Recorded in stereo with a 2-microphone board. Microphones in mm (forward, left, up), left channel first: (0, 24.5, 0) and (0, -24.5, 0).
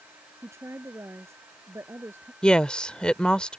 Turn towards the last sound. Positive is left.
turn(degrees=20)  # may be behind; listen again after turning